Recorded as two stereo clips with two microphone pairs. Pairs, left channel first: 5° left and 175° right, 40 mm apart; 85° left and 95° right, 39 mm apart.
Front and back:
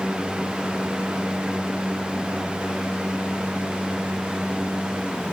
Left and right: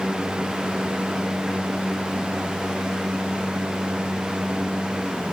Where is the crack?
I don't hear a crack.